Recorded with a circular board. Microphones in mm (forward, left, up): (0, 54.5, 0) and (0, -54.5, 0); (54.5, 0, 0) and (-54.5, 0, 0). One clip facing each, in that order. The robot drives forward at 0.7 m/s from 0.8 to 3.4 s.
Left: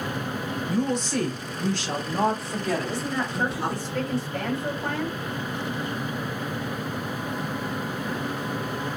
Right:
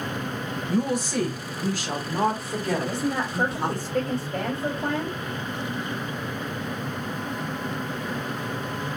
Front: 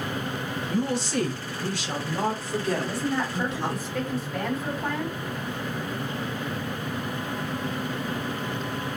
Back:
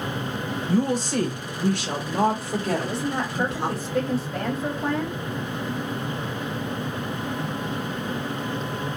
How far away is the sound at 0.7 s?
About 1.1 m.